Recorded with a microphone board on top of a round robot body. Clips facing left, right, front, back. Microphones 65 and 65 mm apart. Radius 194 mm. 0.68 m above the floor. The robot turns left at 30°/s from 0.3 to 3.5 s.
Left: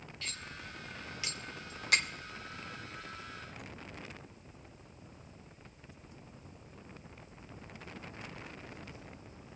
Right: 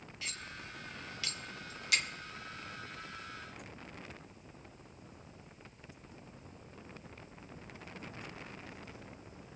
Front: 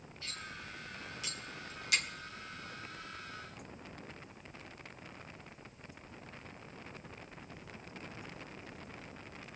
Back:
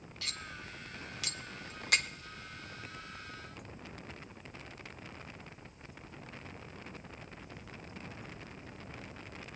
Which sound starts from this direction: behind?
Cutlery clinking, at 0.2 s.